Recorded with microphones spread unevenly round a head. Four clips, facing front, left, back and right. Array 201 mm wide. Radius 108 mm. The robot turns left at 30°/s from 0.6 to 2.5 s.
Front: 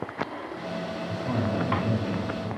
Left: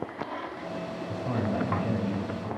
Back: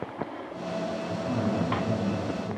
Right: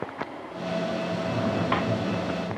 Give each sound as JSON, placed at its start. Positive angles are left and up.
{"t": 1.1, "sound": "a man speaking", "azimuth_deg": 80, "distance_m": 9.0}